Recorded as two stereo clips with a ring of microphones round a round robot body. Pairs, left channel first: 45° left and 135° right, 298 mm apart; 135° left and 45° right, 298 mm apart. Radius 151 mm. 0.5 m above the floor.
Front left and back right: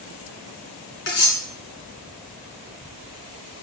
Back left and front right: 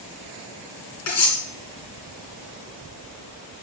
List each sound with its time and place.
1.1 s cutlery clinking: 100° left, 3.5 m